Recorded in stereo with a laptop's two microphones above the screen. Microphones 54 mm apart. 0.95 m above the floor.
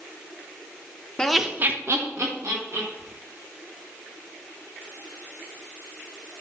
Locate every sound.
1.2 s laughter: 15° left (ahead or behind), 0.8 m; by 2.9 s 70° right (ahead or behind), 2.5 m
3.0 s whispering: 45° right (ahead or behind), 1.8 m